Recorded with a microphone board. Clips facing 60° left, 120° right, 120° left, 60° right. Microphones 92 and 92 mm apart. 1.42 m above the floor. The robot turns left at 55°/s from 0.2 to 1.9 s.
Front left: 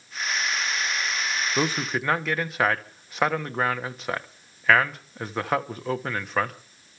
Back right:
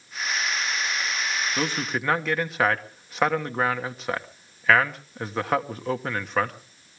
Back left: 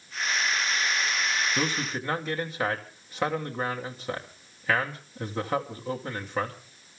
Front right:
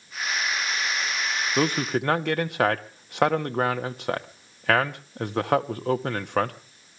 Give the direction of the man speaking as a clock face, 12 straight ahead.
12 o'clock.